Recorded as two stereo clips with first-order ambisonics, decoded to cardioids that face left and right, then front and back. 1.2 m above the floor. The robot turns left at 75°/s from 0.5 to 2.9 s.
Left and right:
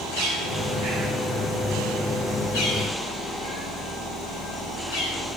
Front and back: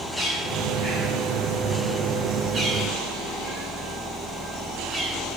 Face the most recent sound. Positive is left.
turn(degrees=95)